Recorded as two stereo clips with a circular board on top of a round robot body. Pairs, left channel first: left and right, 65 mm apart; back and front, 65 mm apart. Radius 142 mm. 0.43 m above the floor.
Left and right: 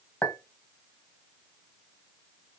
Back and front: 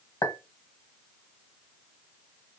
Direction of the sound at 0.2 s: 145° left.